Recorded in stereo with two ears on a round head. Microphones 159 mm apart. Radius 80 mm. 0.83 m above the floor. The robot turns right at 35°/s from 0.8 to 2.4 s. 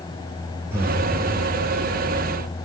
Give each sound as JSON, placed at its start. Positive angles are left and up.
{"t": 0.7, "sound": "breathing", "side_deg": -15, "distance_m": 0.7}